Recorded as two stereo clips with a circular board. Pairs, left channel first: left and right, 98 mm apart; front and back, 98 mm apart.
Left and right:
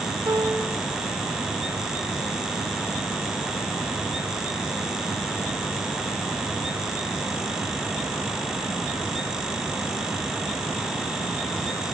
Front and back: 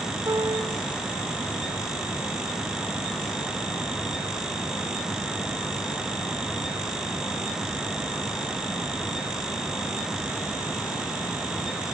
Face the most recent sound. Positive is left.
turn(degrees=-135)